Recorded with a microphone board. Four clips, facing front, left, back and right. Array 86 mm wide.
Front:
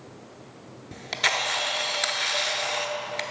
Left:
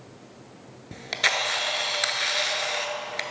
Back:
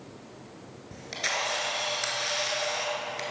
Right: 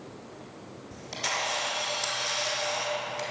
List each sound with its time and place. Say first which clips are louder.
0.9 s a camera shutter: left 6 dB, front 5 dB; 60° left, 0.9 m